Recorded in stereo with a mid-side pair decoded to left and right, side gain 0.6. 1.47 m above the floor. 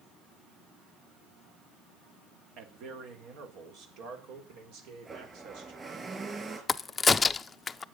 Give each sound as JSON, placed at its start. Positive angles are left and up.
{"t": 2.6, "sound": "a man speaking", "azimuth_deg": -70, "distance_m": 3.0}
{"t": 5.0, "sound": "a blender", "azimuth_deg": -25, "distance_m": 5.5}
{"t": 6.7, "sound": "a crack", "azimuth_deg": 25, "distance_m": 0.5}